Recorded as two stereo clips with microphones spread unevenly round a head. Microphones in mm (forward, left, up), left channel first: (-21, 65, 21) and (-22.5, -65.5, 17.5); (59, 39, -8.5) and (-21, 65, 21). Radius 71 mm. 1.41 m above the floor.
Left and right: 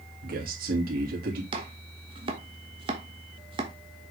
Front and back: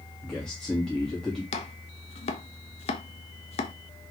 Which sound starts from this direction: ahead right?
Chopping, at 1.5 s.